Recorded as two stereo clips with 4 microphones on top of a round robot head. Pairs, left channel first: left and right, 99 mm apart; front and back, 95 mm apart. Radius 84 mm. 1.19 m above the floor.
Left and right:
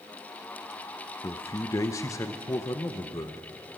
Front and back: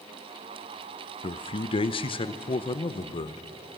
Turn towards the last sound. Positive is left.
turn(degrees=25)